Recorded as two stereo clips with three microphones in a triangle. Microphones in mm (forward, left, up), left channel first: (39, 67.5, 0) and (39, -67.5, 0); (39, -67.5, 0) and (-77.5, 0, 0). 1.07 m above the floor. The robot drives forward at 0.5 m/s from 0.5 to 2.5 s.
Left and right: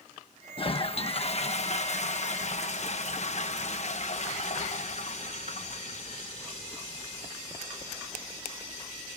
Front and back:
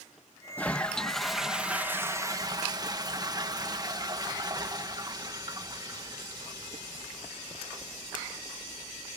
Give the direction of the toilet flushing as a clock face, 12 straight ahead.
10 o'clock.